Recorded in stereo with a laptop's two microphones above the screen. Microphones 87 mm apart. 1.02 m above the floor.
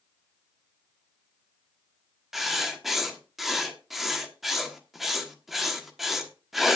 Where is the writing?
5° right (ahead or behind), 1.3 m.